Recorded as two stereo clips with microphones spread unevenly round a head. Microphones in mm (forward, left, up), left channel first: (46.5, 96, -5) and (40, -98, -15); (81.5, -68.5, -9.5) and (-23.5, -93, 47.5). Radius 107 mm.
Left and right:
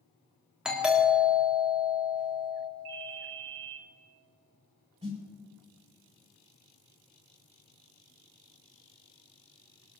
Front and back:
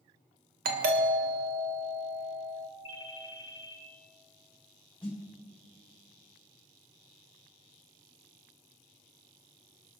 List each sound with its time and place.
0.7 s a doorbell: straight behind, 1.4 m
2.9 s a ringtone: 105° right, 4 m
5.0 s a snare drum: 35° right, 4 m